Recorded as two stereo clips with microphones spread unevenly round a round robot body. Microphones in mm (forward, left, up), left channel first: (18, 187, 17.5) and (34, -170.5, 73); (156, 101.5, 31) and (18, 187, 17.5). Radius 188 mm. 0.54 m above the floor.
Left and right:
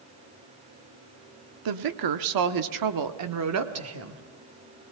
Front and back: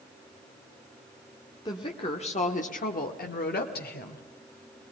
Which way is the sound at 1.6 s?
100° right.